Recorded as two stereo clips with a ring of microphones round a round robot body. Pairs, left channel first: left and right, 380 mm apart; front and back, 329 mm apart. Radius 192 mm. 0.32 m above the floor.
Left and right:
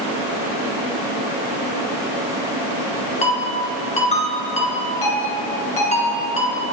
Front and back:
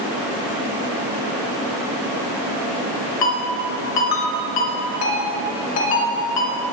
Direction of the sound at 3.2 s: 15° left.